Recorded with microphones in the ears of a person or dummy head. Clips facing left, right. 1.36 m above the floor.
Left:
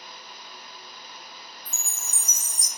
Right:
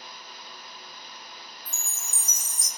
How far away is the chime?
About 1.5 m.